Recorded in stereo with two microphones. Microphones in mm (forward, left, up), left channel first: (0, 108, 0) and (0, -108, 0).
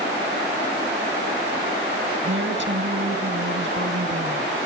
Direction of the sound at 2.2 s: 60° right (ahead or behind).